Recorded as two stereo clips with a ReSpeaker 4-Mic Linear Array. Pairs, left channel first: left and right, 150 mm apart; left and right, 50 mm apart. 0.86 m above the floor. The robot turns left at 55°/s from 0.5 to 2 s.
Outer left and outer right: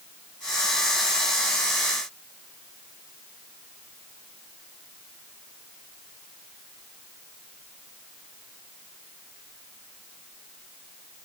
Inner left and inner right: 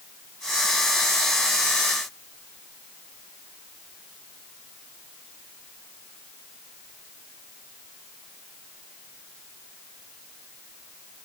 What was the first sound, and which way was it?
Only background noise.